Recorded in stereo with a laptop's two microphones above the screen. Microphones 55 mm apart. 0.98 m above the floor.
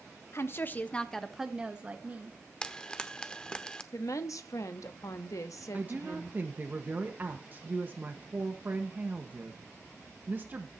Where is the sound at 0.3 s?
55° left (ahead or behind), 1.1 m; by 2.4 s 30° right (ahead or behind), 1.9 m.